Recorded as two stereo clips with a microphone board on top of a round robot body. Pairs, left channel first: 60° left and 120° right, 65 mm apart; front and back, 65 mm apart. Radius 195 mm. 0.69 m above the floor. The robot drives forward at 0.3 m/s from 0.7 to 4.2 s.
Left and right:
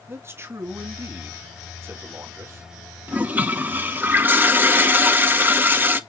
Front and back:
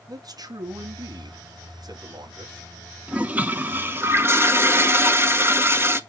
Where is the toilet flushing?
140° right, 1.2 m; by 6.0 s 160° right, 1.3 m.